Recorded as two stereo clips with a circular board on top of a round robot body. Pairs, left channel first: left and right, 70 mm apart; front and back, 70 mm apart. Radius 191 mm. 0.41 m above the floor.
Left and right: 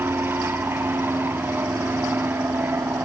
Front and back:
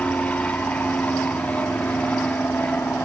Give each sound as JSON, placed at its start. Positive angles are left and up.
{"t": 0.0, "sound": "an aircraft", "azimuth_deg": -55}